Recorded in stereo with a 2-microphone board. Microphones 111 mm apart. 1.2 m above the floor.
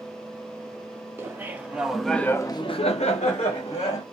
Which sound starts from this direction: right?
Laughter, at 1.2 s.